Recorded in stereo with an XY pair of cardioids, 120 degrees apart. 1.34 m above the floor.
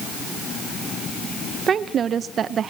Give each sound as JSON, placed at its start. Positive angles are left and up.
{"t": 1.7, "sound": "a woman speaking", "azimuth_deg": -45, "distance_m": 0.7}